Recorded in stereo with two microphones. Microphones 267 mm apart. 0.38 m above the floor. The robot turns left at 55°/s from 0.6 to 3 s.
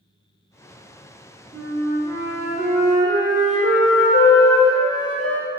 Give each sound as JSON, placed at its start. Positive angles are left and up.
{"t": 1.5, "sound": "a flute", "azimuth_deg": 175, "distance_m": 1.5}